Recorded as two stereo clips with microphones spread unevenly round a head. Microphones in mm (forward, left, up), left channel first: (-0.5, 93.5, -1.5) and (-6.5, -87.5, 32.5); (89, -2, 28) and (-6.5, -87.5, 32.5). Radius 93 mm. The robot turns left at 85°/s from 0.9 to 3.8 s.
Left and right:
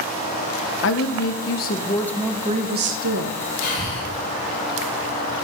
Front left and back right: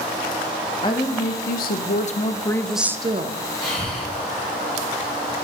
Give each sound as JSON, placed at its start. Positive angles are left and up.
{"t": 0.8, "sound": "a woman speaking", "azimuth_deg": 110, "distance_m": 0.5}
{"t": 3.6, "sound": "breathing", "azimuth_deg": 120, "distance_m": 1.5}